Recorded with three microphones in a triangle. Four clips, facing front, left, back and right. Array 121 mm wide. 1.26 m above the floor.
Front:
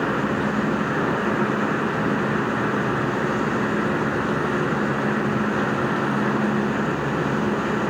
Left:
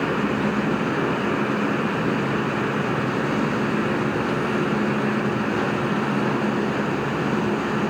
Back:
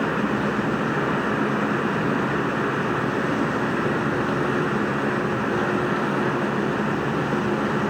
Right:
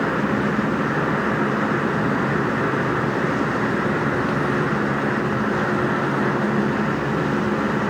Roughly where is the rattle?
I don't hear a rattle.